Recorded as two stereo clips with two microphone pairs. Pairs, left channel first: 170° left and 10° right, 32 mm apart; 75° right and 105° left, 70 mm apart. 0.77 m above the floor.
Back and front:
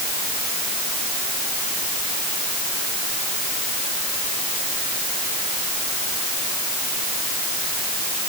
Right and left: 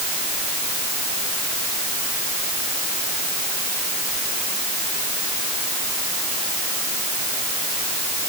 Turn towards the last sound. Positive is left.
No sound to turn to.